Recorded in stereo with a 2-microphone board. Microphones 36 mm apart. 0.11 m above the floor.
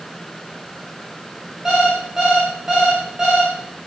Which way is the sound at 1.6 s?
15° right (ahead or behind).